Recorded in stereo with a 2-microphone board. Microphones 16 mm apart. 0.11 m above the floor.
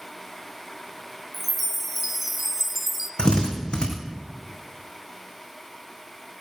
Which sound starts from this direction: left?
A drill, at 3.2 s.